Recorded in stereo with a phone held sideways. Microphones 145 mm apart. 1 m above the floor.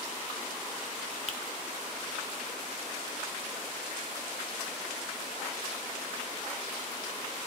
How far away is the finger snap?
About 0.7 m.